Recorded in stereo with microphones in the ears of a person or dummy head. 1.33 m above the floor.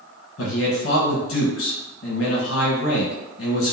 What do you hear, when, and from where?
0.4 s a man speaking: 65° left (ahead or behind), 1.5 m